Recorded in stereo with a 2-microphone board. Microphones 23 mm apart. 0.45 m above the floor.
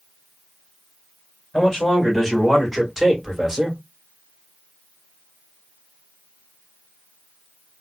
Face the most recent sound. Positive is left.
turn(degrees=-10)  # may be behind; listen again after turning